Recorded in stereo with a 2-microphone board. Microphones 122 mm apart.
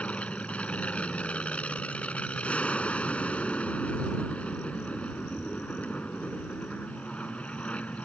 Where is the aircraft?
10° left (ahead or behind).